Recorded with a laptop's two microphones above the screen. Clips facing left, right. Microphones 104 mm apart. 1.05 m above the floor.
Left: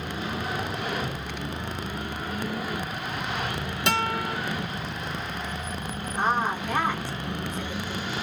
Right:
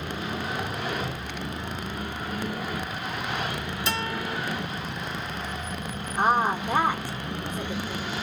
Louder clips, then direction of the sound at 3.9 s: Left 5 dB; 65° left (ahead or behind).